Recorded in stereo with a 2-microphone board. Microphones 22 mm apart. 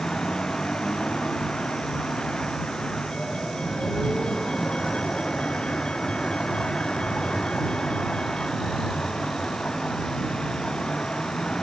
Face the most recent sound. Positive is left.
turn(degrees=45)  # may be behind; listen again after turning